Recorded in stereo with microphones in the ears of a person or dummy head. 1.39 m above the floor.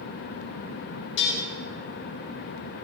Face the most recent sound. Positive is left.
turn(degrees=65)  # may be behind; listen again after turning